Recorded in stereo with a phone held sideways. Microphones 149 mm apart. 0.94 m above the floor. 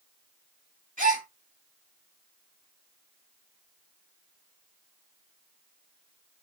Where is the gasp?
65° right (ahead or behind), 1.8 m.